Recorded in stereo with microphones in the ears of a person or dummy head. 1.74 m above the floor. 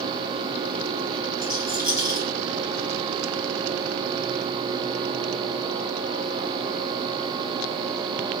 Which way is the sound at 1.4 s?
20° left (ahead or behind).